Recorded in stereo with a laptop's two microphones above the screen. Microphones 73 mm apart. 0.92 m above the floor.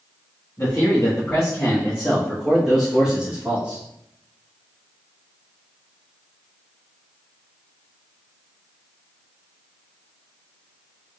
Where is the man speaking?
45° left (ahead or behind), 1.8 m; by 3.8 s 20° right (ahead or behind), 1.5 m.